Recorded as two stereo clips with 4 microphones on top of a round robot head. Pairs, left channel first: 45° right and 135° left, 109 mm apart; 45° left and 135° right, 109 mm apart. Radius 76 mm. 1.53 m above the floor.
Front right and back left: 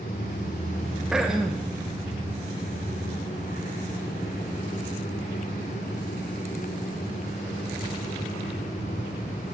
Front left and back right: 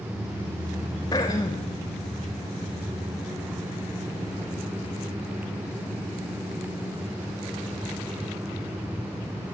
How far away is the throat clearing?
About 1.0 m.